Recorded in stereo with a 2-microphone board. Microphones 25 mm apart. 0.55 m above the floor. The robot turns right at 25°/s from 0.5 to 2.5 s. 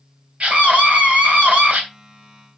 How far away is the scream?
About 3 m.